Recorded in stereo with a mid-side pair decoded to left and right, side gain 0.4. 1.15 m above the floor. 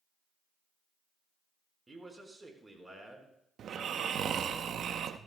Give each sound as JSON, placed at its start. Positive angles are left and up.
{"t": 1.9, "sound": "a man speaking", "azimuth_deg": -25, "distance_m": 4.5}
{"t": 3.6, "sound": "snoring", "azimuth_deg": -65, "distance_m": 0.8}